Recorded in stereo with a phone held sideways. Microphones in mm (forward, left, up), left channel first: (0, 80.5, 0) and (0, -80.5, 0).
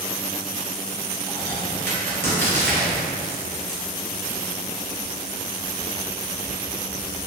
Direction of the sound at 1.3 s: 75° right (ahead or behind).